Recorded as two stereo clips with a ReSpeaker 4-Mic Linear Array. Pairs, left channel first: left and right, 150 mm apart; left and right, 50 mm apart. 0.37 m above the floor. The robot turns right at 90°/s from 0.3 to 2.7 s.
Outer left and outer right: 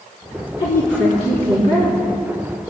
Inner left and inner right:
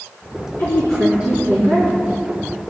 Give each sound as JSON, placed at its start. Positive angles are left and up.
{"t": 0.6, "sound": "a woman speaking", "azimuth_deg": 140, "distance_m": 4.0}